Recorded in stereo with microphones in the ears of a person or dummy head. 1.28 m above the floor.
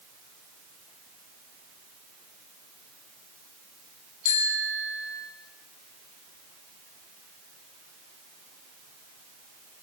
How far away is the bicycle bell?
About 8.5 m.